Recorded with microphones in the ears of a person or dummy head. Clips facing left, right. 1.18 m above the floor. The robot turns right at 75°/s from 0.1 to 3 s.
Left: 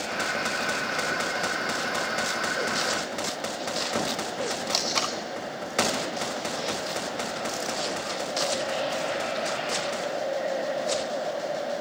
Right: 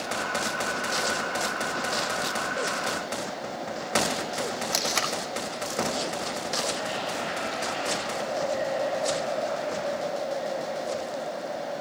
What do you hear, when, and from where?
4.7 s tape being pulled: 15° right (ahead or behind), 0.8 m